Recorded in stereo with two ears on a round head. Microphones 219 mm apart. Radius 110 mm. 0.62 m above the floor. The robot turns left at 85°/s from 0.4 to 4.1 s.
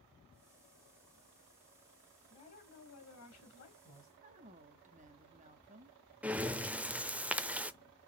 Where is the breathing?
5° right (ahead or behind), 0.6 m.